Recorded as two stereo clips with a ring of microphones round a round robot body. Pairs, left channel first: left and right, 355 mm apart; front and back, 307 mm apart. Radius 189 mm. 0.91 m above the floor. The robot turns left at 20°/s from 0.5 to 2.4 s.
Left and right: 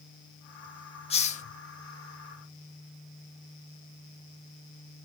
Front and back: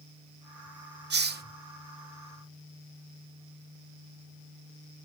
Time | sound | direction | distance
1.1 | a hiss | 150° left | 0.9 m